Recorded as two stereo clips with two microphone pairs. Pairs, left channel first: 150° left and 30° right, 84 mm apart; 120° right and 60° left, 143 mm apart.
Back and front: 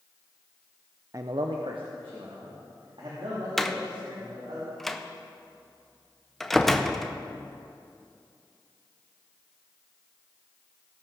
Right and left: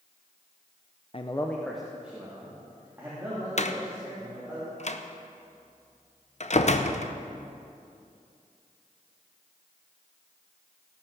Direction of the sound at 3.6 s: 120° right.